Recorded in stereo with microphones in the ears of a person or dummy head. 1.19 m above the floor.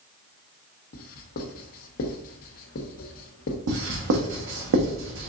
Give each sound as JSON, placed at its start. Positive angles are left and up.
{"t": 0.9, "sound": "writing", "side_deg": 50, "distance_m": 0.8}
{"t": 3.7, "sound": "writing", "side_deg": -65, "distance_m": 1.2}